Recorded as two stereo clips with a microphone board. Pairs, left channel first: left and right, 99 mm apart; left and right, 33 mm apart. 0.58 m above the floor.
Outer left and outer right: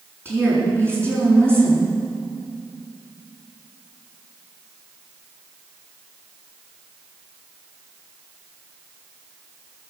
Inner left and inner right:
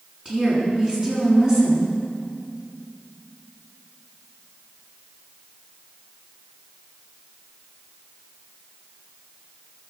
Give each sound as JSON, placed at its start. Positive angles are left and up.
{"t": 0.2, "sound": "a woman speaking", "side_deg": -25, "distance_m": 6.5}